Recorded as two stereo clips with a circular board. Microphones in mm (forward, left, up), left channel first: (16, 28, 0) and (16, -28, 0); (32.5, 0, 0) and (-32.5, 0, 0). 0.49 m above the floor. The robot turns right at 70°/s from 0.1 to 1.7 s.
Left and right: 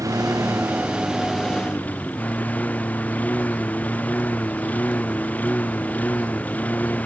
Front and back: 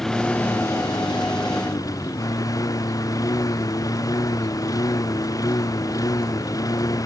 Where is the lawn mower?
85° right; by 7.1 s 30° left.